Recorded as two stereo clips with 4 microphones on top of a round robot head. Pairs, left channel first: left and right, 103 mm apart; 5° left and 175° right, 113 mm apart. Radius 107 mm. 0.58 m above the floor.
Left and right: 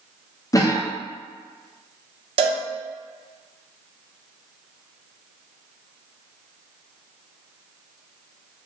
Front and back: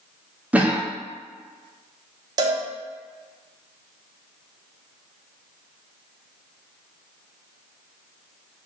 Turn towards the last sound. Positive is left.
turn(degrees=-120)